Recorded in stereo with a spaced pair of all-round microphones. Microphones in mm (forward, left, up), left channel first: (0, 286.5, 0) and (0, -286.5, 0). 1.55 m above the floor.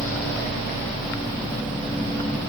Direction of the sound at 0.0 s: 5° left (ahead or behind).